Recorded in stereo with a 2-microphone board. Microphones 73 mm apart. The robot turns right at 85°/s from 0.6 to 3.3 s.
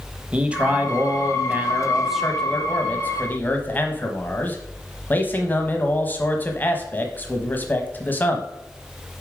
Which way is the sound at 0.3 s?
15° right (ahead or behind).